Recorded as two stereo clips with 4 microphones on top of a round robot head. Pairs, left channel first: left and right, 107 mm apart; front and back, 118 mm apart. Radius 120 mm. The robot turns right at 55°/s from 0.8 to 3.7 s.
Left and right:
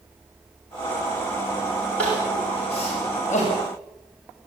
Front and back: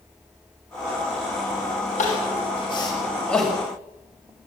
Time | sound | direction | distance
2.0 | crying | 10° left | 6 m